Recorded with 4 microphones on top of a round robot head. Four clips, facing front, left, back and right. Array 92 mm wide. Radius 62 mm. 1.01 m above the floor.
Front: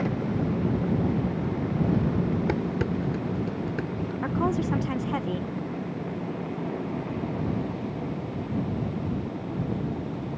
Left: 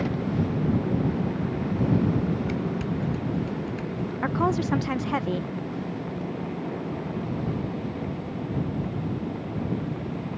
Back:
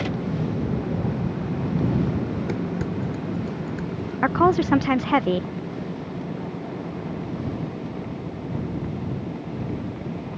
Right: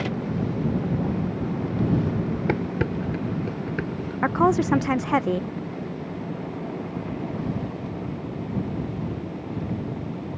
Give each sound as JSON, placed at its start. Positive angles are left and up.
{"t": 2.5, "sound": "dishes clattering", "azimuth_deg": -75}
{"t": 4.2, "sound": "a woman speaking", "azimuth_deg": -150}